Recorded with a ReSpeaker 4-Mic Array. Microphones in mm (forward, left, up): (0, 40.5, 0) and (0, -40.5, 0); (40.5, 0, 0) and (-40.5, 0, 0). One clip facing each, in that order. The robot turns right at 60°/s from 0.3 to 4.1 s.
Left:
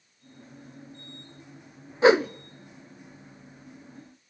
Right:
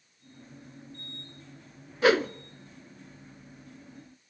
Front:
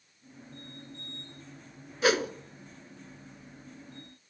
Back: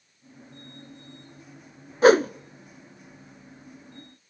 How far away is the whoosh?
About 0.6 m.